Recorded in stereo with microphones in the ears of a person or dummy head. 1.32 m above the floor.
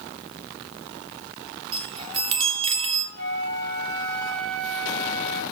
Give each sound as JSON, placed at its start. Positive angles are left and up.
{"t": 1.7, "sound": "a chime", "side_deg": -30, "distance_m": 1.5}
{"t": 3.1, "sound": "a flute", "side_deg": -55, "distance_m": 6.5}